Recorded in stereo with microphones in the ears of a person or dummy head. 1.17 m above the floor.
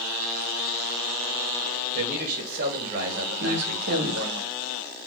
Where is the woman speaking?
65° right (ahead or behind), 1.3 m.